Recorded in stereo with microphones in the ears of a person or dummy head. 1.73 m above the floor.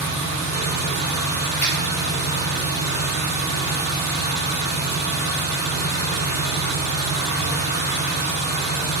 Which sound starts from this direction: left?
An engine running, at 0.0 s.